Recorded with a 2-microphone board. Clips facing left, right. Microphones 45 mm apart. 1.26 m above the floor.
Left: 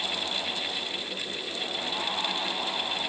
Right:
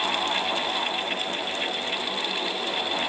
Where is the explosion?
No explosion in this recording.